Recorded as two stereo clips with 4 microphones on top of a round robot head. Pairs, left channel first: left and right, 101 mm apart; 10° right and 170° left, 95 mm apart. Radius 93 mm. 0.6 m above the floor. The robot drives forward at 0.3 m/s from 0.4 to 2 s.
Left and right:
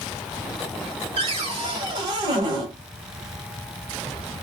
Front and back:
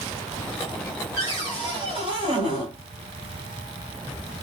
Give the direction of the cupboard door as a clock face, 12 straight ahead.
4 o'clock.